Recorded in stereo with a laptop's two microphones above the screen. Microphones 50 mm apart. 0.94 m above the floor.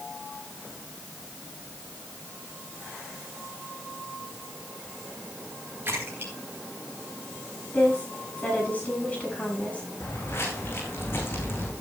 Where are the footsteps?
50° left (ahead or behind), 4.5 m; by 11.7 s 40° left (ahead or behind), 4 m.